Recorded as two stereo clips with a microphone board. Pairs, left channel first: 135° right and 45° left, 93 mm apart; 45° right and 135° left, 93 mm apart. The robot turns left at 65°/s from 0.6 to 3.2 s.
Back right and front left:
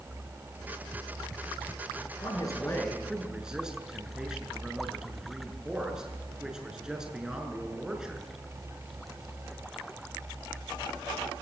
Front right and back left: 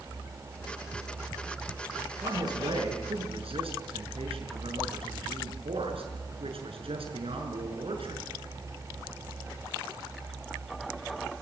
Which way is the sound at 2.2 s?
165° right.